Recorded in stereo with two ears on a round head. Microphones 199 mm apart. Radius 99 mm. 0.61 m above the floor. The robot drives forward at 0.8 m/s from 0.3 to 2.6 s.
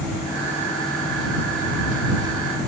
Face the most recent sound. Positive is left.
No sound to turn to.